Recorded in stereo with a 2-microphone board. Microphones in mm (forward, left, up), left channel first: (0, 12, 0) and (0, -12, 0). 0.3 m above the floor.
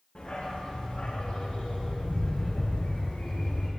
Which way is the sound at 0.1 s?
65° left (ahead or behind).